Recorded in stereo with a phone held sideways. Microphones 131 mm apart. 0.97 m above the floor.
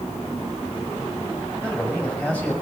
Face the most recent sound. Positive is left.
turn(degrees=10)  # may be behind; listen again after turning